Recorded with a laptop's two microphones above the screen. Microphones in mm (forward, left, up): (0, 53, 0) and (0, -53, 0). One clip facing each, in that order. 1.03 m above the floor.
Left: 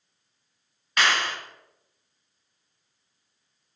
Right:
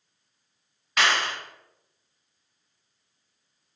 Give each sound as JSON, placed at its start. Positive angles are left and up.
{"t": 1.0, "sound": "a clap", "side_deg": 0, "distance_m": 1.1}